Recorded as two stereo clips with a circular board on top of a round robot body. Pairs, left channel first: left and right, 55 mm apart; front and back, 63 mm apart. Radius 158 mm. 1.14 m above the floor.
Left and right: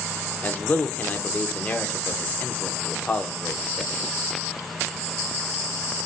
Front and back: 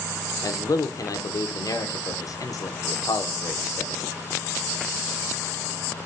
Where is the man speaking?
30° left, 0.8 m.